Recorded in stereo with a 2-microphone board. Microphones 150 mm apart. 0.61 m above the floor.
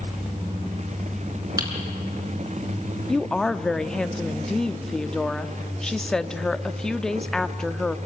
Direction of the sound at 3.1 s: 5° left (ahead or behind).